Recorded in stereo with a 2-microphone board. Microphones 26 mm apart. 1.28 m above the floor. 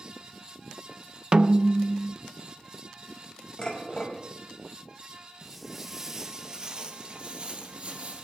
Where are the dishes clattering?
30° left (ahead or behind), 5 m.